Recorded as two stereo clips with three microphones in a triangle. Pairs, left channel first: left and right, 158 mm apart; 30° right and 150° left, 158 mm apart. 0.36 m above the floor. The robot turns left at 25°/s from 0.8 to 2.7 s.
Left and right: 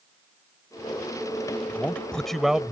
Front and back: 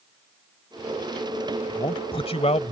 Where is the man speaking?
15° left; by 2.7 s 10° right.